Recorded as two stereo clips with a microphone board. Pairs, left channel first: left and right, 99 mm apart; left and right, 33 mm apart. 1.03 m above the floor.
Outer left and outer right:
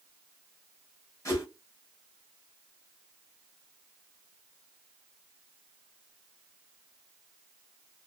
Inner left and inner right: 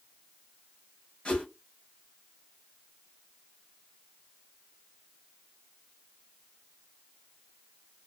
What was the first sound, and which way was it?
A whoosh, 30° left (ahead or behind).